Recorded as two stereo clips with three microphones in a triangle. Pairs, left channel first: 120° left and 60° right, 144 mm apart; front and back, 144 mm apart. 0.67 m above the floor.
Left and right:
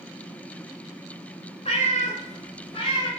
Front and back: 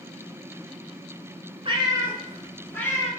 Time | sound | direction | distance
1.6 | a cat meowing | 145° left | 0.9 m